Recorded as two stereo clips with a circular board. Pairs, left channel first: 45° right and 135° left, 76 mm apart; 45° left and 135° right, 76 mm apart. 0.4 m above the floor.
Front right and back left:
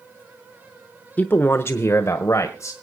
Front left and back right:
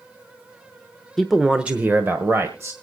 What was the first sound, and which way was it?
A man speaking, 30° right.